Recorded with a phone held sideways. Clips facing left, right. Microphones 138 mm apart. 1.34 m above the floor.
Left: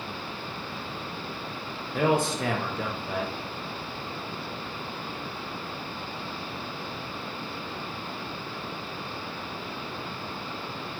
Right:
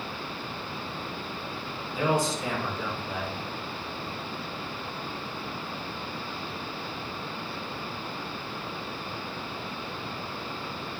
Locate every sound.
1.9 s a man speaking: 60° left (ahead or behind), 0.7 m